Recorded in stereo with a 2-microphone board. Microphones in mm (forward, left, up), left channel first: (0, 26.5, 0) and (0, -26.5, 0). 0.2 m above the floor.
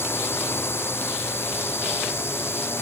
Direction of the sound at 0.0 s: 50° left (ahead or behind).